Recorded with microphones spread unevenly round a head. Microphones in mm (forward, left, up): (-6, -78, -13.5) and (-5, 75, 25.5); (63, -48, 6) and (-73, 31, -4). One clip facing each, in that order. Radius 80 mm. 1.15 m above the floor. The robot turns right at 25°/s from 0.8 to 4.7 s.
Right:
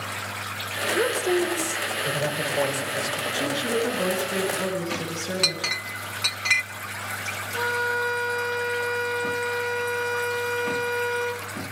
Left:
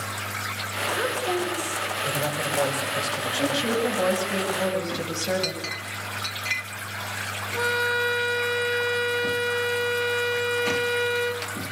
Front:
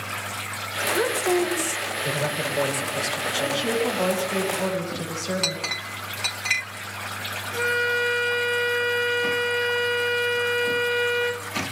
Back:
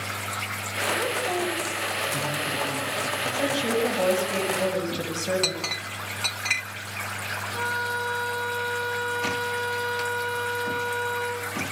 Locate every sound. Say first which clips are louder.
0.9 s a woman speaking: right 4 dB, front 6 dB; 40° right, 5 m; by 3.6 s 25° left, 5 m
3.4 s a woman speaking: left 1 dB, even; 75° left, 8 m; by 5.6 s 110° left, 8 m
5.4 s a clink: even, even; 115° right, 0.9 m
7.5 s a violin: left 1 dB, front 7 dB; 30° left, 2.5 m